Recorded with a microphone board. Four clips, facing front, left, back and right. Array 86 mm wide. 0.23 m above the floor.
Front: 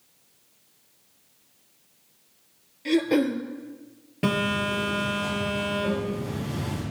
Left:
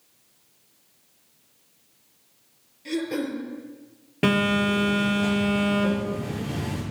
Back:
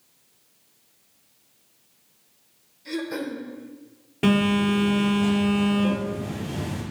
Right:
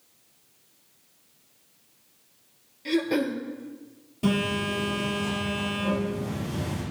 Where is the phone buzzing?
100° left, 3.5 m.